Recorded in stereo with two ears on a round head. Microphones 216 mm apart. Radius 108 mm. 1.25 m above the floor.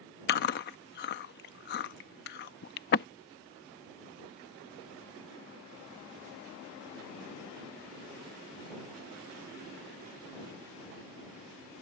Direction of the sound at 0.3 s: 45° left (ahead or behind).